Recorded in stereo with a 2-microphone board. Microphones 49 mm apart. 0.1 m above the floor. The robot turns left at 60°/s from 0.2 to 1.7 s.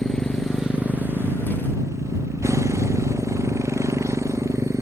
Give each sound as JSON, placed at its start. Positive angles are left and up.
{"t": 0.0, "sound": "a motorcycle", "azimuth_deg": 15}